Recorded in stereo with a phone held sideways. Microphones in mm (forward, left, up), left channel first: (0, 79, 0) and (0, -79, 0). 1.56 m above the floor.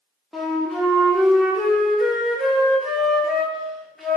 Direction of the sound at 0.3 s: Centre (ahead or behind).